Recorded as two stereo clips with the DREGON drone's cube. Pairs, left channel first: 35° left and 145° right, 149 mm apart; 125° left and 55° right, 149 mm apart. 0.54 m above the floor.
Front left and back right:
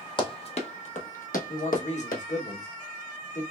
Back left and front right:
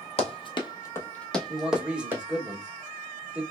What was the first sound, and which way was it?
Running footsteps, 85° left.